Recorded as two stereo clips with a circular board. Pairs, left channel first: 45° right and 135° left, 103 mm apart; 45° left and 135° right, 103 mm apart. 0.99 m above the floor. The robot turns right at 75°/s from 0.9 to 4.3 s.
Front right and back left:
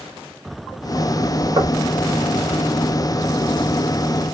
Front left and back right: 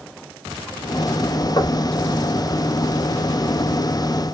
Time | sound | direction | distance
1.6 | knocking | 85° left | 1.1 m